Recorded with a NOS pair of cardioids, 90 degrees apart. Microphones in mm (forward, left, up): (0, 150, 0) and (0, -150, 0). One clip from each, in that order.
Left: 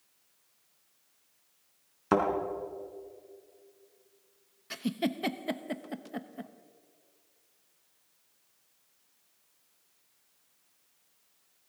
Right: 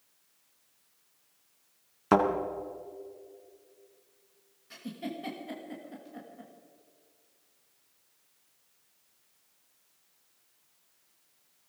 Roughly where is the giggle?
Ahead left.